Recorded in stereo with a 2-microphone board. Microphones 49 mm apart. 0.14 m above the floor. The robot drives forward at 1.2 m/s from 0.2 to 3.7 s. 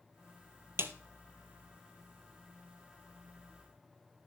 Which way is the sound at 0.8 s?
55° right (ahead or behind).